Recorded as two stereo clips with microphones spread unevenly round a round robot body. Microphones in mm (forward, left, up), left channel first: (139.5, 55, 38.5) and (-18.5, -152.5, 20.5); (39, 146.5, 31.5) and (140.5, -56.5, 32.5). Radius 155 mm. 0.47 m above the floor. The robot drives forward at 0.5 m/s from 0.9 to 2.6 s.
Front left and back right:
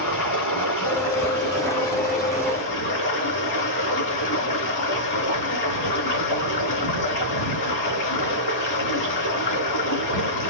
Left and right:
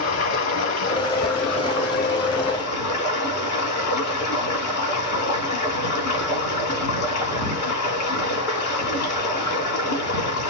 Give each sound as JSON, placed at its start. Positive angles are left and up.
{"t": 0.0, "sound": "running water", "azimuth_deg": 110, "distance_m": 3.0}